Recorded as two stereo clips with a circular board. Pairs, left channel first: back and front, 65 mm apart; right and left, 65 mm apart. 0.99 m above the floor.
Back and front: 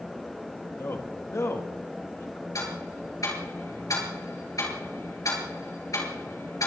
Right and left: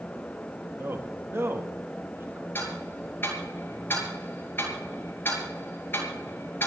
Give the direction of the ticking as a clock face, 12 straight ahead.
5 o'clock.